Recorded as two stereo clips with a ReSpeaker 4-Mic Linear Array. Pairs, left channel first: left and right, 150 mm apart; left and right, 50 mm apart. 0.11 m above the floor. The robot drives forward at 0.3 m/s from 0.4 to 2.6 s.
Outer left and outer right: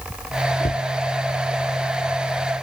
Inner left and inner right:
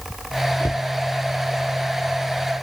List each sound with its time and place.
0.6 s a cupboard door: 80° left